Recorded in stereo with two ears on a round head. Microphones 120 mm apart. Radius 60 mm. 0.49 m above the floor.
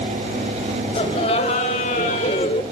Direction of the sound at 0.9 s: 45° left (ahead or behind).